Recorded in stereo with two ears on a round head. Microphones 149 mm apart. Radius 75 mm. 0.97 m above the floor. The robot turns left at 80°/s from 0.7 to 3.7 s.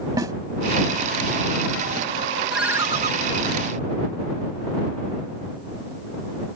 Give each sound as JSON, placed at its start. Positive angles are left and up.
{"t": 0.2, "sound": "a snare drum", "side_deg": -20}
{"t": 2.5, "sound": "a ringtone", "azimuth_deg": 5}